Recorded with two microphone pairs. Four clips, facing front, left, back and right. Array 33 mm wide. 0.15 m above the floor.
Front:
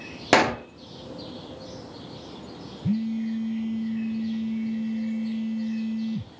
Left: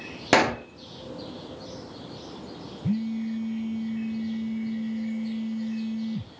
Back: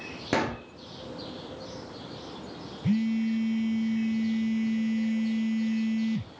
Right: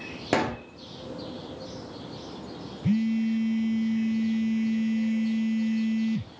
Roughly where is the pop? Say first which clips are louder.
Left 6 dB, front 9 dB; ahead left.